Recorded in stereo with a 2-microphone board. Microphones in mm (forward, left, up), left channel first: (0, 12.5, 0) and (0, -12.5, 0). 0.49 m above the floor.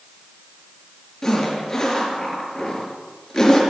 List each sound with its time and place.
1.2 s a zipper: 20° left (ahead or behind), 4.5 m